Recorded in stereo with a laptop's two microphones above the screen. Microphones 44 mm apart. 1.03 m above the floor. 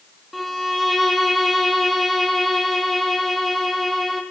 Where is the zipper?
I don't hear a zipper.